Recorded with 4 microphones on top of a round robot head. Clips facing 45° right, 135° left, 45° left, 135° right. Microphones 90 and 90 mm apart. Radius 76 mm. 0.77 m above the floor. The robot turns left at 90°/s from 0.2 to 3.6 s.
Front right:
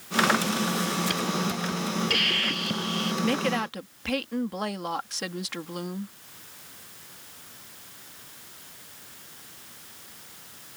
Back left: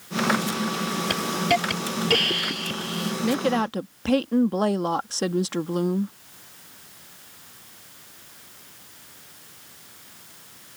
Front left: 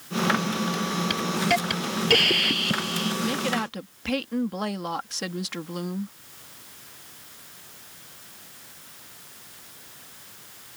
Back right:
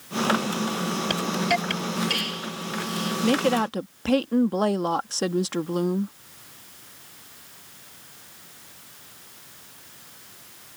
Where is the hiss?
175° left; by 3.1 s 5° right.